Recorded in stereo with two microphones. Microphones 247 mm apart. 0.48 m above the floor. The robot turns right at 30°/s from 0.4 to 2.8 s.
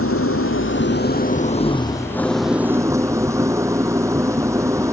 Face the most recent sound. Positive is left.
turn(degrees=-170)